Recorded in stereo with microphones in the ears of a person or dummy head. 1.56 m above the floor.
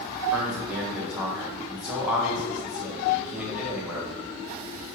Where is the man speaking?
5° right (ahead or behind), 1.5 m.